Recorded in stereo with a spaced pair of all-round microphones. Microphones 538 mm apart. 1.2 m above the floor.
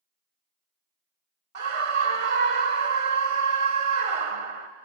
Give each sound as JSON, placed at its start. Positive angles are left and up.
{"t": 1.6, "sound": "a scream", "side_deg": -75, "distance_m": 0.9}